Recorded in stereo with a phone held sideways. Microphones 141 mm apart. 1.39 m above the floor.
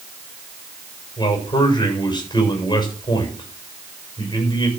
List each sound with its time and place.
1.2 s a man speaking: 30° left (ahead or behind), 6.5 m